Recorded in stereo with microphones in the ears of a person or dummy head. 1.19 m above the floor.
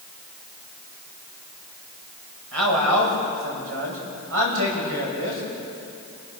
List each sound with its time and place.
2.5 s a man speaking: 85° right, 6.5 m; by 5.4 s 70° right (ahead or behind), 6.5 m